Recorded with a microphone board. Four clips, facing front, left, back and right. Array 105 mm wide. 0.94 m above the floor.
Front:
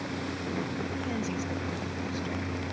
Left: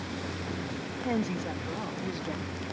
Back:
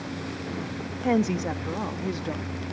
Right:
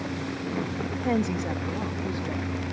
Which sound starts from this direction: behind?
A woman speaking, at 1.0 s.